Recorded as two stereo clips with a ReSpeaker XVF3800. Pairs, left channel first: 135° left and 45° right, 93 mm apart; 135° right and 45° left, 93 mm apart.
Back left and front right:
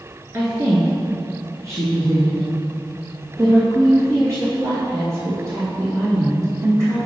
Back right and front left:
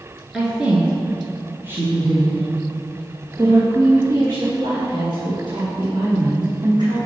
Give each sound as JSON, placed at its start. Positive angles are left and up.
{"t": 0.3, "sound": "a woman speaking", "azimuth_deg": -35, "distance_m": 1.7}